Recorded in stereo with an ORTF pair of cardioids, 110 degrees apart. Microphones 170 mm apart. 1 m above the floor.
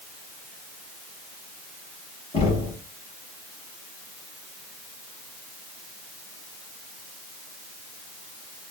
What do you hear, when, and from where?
2.3 s knocking: 35° left, 7 m